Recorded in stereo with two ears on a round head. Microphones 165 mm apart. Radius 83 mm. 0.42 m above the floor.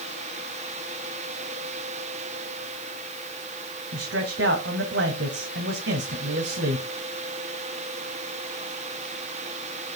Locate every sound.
3.9 s a man speaking: 65° right (ahead or behind), 2 m